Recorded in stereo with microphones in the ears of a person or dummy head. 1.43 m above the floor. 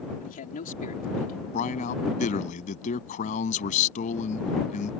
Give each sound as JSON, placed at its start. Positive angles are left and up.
{"t": 0.2, "sound": "a man speaking", "side_deg": 40}
{"t": 1.5, "sound": "a man speaking", "side_deg": 45}